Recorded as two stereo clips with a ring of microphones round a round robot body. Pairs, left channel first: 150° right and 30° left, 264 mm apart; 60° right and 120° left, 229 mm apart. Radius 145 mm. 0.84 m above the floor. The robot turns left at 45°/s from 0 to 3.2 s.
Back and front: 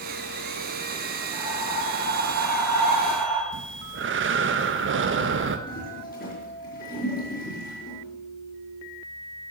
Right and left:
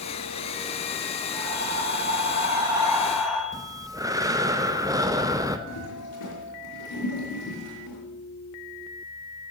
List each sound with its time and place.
1.3 s breathing: 115° left, 4 m; by 3.4 s 30° left, 4 m
3.5 s breathing: 50° left, 1.0 m
5.7 s a toilet flushing: 90° right, 4 m